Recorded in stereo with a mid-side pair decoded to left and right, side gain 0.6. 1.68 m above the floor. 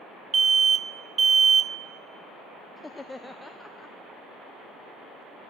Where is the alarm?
35° right, 0.7 m.